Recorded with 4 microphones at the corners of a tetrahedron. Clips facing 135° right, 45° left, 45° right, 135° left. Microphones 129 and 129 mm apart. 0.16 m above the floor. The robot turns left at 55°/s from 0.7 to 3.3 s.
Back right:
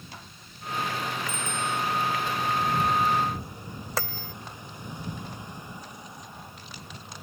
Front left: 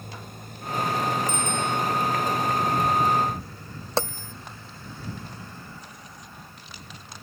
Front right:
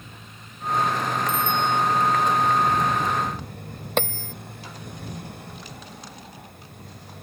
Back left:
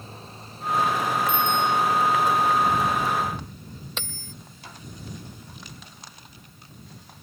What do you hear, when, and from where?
0.0 s a motorcycle: 80° left; by 7.2 s 65° right
1.3 s a bicycle bell: 45° left; by 1.8 s 15° left
4.0 s a bell: 15° right